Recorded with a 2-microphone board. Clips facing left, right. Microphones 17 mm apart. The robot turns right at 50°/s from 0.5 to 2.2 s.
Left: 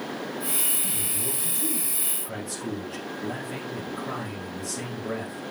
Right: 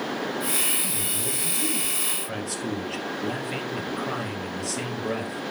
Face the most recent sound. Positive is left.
turn(degrees=-130)